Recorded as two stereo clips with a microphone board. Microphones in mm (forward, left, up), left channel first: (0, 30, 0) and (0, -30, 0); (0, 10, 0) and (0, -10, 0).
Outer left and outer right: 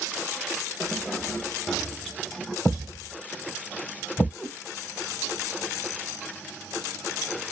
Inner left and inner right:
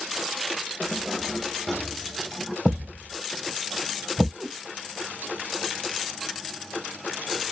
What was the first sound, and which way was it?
Keys jangling, 15° left (ahead or behind).